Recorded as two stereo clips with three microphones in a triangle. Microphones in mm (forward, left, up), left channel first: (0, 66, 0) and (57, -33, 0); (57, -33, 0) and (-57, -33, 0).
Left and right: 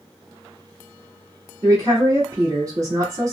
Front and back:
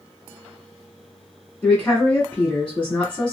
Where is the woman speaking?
70° right, 1.4 m.